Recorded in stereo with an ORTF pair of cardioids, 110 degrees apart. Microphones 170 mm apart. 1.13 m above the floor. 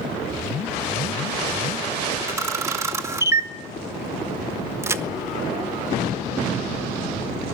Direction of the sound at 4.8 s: 15° right.